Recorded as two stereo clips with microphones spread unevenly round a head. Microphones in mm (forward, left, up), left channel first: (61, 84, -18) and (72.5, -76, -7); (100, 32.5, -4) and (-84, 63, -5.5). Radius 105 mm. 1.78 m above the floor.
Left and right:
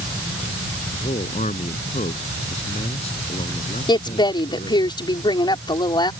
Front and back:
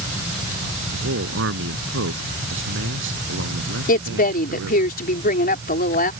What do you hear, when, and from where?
0.9 s a man speaking: 160° left
3.9 s a woman speaking: 30° left